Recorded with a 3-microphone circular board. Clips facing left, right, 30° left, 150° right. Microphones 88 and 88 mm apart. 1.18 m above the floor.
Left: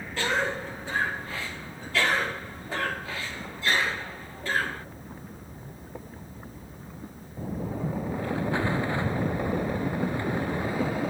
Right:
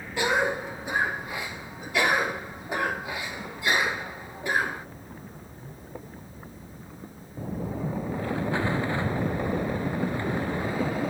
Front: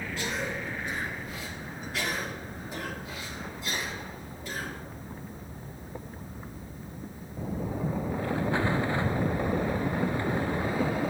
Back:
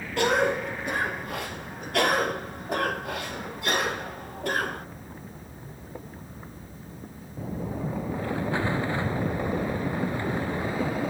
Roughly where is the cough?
Behind.